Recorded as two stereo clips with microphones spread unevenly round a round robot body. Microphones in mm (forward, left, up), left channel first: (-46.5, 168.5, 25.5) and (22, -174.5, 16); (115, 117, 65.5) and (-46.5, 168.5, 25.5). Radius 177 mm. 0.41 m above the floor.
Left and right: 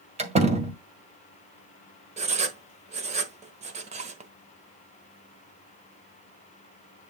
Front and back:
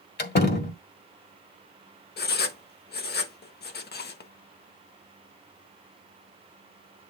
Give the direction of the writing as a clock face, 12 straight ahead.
12 o'clock.